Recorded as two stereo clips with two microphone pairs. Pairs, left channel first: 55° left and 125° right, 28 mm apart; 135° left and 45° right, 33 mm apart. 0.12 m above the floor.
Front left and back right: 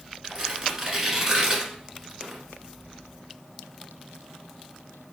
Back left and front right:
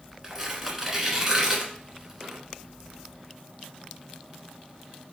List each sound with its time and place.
0.2 s tearing paper: 90° right, 1.1 m